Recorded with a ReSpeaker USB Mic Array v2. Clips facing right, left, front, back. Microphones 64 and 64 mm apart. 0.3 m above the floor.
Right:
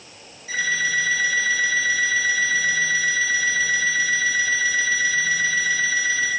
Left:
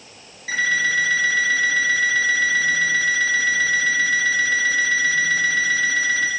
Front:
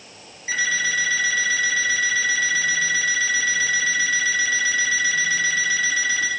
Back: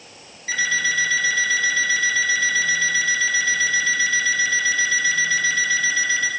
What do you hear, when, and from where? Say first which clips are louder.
0.5 s an alarm clock: left 3 dB, back 1 dB; 70° left, 8 m